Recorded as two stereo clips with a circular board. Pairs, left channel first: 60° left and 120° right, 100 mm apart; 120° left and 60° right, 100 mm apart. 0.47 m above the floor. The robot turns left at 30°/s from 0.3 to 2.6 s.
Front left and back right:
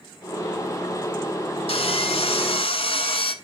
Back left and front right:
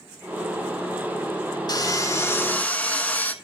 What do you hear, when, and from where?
1.7 s sawing: 75° left, 0.9 m; by 3.3 s 45° left, 0.9 m